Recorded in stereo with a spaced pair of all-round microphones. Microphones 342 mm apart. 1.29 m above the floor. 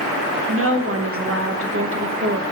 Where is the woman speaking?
40° right (ahead or behind), 1.0 m.